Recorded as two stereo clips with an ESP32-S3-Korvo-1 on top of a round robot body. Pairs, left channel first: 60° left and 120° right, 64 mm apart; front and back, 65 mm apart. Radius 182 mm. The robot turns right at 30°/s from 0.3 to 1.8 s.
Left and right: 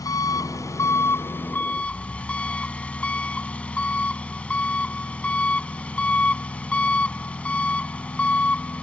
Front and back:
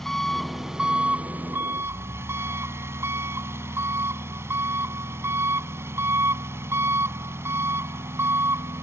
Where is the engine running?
85° left; by 8.8 s 130° left.